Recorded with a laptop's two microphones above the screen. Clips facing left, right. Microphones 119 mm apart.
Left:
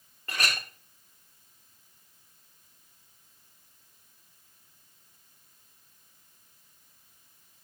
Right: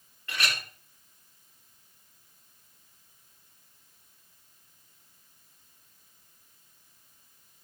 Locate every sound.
0.3 s a clink: 45° left (ahead or behind), 1.5 m